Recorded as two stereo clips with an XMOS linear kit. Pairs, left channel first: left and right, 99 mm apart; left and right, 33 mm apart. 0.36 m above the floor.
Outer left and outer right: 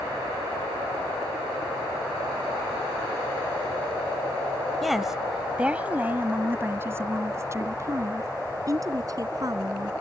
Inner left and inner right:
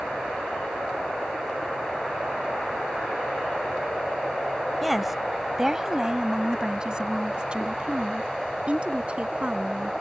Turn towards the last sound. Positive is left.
turn(degrees=-40)  # may be behind; listen again after turning